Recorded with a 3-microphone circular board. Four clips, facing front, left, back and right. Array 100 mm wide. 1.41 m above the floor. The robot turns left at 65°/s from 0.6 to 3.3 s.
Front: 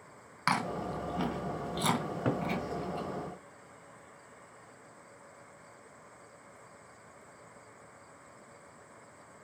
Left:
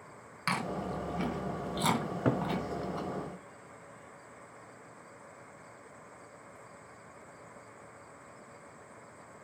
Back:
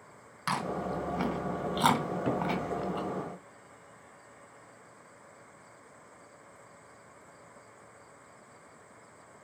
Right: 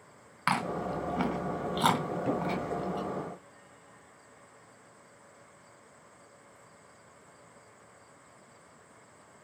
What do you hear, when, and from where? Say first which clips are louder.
0.5 s chewing: right 4 dB, even; 60° right, 2.5 m; by 3.0 s 145° left, 2.5 m
2.0 s a cupboard door: even, back 2 dB; 95° left, 2 m; by 2.5 s 65° left, 2 m